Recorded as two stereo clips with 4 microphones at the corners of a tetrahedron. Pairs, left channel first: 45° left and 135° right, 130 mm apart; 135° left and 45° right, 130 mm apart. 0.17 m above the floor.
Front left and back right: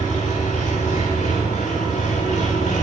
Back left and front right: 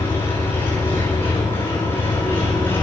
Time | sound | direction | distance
0.0 | an engine running | 60° left | 8.5 m